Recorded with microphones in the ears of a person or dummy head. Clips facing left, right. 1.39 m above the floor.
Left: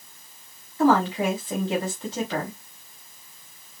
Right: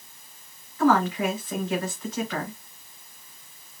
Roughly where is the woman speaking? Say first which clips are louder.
Left 1 dB; left.